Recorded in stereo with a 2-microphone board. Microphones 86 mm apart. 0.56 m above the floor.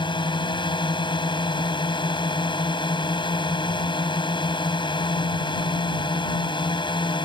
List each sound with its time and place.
0.0 s a drone: 70° left (ahead or behind)